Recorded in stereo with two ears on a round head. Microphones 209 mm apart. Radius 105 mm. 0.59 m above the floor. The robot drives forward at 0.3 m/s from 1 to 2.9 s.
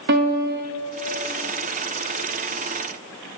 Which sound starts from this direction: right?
A piano, at 0.1 s.